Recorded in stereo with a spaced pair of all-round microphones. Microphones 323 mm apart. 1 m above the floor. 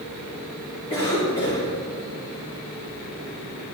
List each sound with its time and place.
0.9 s a cough: 15° left (ahead or behind), 3 m